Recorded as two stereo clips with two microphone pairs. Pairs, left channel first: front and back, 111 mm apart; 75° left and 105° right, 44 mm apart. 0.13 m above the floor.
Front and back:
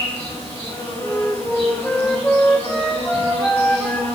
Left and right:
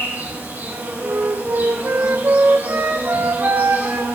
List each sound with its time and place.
0.0 s an insect: 75° right, 7 m
1.0 s a flute: 80° right, 1.3 m